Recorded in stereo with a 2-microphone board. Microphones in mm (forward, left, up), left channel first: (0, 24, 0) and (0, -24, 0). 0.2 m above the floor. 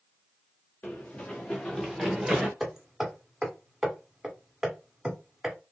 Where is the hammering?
10° right (ahead or behind), 1.0 m.